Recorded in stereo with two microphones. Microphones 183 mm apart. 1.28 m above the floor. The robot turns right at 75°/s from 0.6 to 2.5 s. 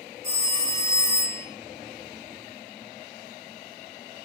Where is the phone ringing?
125° right, 1.8 m; by 1.4 s 65° right, 1.8 m.